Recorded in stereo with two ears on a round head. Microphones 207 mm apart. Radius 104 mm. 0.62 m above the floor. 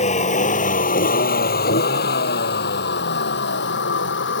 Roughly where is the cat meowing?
I don't hear a cat meowing.